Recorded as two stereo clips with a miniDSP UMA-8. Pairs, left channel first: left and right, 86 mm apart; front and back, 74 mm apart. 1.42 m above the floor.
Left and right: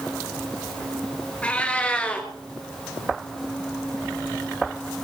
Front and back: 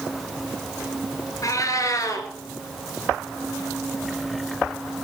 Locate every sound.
1.4 s a cat meowing: 20° left, 2.5 m